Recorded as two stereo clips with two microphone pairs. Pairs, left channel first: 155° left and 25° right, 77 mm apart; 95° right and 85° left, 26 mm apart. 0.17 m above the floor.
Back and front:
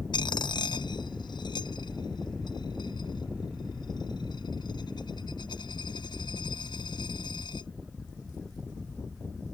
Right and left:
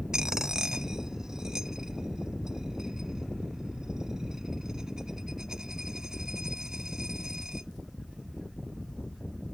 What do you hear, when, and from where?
0.1 s a dropped coin: 150° left